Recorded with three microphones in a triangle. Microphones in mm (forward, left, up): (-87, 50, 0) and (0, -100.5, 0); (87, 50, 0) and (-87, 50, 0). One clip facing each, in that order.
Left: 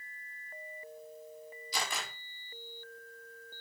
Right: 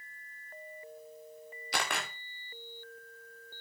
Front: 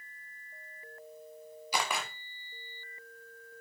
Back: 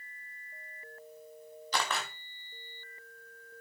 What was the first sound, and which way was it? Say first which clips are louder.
A camera shutter: right 3 dB, even; 80° right.